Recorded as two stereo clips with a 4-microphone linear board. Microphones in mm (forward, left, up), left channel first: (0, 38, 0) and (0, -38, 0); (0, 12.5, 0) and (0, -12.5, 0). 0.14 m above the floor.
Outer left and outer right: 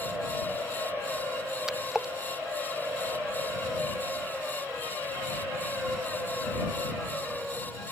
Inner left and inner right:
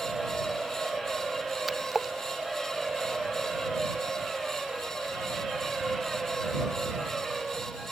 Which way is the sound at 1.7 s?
5° right (ahead or behind).